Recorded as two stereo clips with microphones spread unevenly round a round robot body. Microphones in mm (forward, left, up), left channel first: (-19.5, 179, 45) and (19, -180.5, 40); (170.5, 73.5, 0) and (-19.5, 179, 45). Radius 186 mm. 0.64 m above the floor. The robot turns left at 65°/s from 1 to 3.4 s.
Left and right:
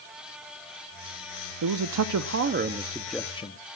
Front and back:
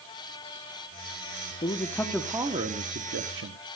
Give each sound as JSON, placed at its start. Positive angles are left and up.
{"t": 1.6, "sound": "a man speaking", "azimuth_deg": -75, "distance_m": 0.8}